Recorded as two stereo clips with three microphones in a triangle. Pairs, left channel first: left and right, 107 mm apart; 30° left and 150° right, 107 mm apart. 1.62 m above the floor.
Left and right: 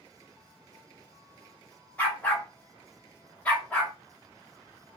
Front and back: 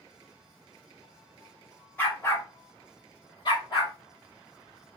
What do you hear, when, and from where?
2.0 s a dog barking: 50° left, 1.1 m; by 3.9 s 15° left, 1.6 m